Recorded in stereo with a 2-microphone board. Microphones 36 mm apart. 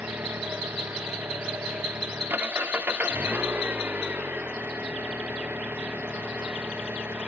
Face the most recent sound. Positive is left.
turn(degrees=-75)  # may be behind; listen again after turning